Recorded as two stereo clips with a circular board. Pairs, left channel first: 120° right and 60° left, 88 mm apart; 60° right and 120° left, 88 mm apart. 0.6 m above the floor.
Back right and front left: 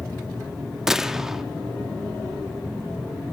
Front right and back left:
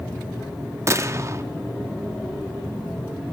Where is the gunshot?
140° left, 0.5 m.